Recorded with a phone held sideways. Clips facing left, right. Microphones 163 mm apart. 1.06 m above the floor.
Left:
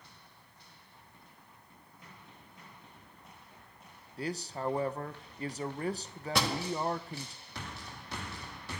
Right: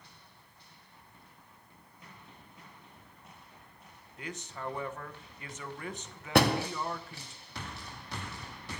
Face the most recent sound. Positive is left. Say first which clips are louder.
# right 8 dB
turn(degrees=-65)  # may be behind; listen again after turning